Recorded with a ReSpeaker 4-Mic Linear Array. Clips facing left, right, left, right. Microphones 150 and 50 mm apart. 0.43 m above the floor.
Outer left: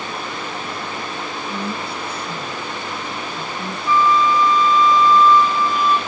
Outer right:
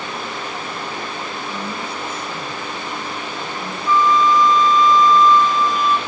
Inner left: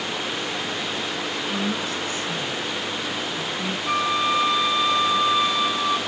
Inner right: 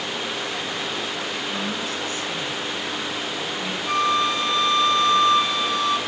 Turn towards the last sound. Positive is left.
turn(degrees=10)  # may be behind; listen again after turning